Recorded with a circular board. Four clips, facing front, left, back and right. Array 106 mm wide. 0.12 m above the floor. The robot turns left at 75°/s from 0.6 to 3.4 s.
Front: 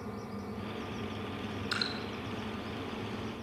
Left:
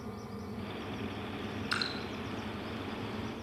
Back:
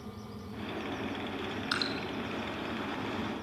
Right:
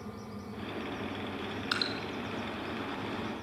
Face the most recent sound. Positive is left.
turn(degrees=110)